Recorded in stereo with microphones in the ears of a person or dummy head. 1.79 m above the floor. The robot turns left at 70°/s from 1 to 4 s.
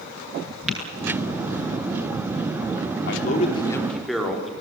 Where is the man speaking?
70° left, 5.5 m; by 4.5 s 5° left, 5.5 m.